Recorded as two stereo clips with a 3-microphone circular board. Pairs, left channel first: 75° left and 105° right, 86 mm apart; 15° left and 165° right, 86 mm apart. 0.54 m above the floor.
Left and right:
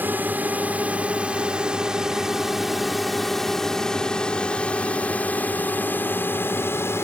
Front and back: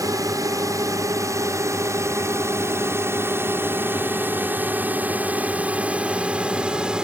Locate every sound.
0.0 s a drone: 160° right; by 7.0 s 120° left